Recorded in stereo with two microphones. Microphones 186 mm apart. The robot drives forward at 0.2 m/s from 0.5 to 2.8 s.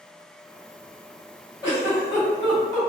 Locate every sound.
1.6 s a giggle: 20° left (ahead or behind), 1.7 m